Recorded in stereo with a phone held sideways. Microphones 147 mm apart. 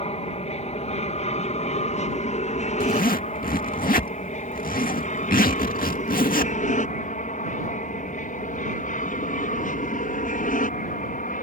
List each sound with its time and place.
0.0 s an aircraft: 45° left (ahead or behind); by 11.4 s 60° left (ahead or behind)
2.8 s a zipper: 65° left (ahead or behind)